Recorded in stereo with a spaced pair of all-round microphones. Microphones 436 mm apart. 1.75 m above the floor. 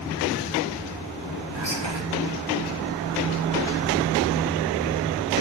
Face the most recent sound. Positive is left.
turn(degrees=-85)